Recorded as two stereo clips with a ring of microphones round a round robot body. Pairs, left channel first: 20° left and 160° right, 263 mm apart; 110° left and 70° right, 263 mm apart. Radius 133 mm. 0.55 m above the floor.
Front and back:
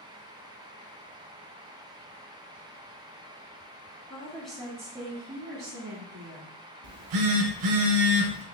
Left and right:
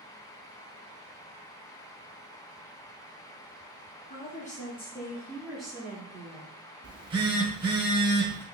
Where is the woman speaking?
90° left, 1.2 m; by 6.5 s 140° right, 1.6 m.